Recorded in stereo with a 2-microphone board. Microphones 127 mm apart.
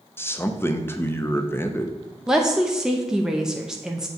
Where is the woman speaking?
5° right (ahead or behind), 0.7 m.